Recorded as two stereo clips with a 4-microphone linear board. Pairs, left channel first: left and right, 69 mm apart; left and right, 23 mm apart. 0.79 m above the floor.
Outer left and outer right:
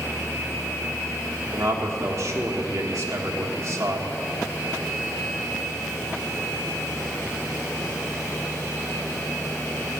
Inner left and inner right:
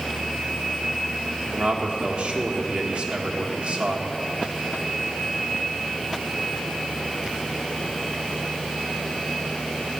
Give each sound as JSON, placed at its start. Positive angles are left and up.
{"t": 1.5, "sound": "a man speaking", "side_deg": -50, "distance_m": 1.4}